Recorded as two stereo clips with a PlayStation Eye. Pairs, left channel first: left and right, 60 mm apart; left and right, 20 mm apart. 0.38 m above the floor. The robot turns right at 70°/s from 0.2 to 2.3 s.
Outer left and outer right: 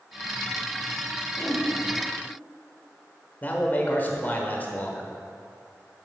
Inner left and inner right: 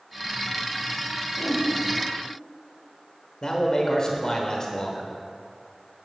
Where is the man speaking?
30° left (ahead or behind), 1.2 m.